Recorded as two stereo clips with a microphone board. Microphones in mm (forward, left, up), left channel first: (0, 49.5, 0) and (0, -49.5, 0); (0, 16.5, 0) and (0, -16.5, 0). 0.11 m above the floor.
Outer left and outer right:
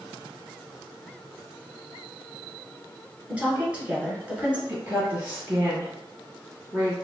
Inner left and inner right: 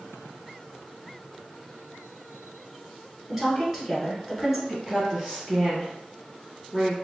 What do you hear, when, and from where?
3.3 s a woman speaking: 15° right (ahead or behind), 1.4 m
4.7 s a woman speaking: 20° right (ahead or behind), 1.9 m